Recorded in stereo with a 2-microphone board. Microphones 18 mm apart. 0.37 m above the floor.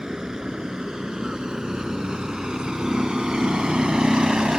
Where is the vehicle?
50° right (ahead or behind); by 4.6 s 70° right (ahead or behind).